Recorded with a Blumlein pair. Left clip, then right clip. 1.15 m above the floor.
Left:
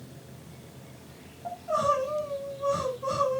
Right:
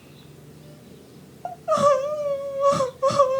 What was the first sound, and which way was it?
Crying, 30° right.